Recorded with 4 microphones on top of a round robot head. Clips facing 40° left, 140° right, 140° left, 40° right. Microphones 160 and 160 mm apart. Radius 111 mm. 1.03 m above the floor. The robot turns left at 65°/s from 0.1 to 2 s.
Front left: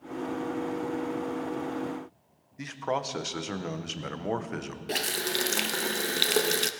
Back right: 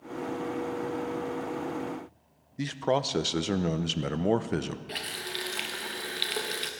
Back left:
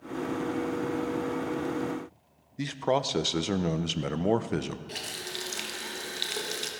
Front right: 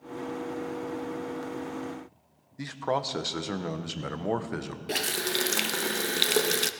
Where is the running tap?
5° right, 0.6 m.